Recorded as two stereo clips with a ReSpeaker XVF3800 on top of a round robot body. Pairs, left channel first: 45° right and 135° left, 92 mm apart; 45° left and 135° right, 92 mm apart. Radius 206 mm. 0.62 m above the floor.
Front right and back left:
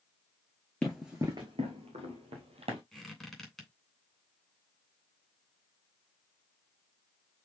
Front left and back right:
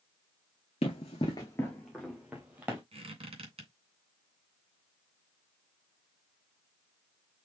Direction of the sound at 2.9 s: 135° right.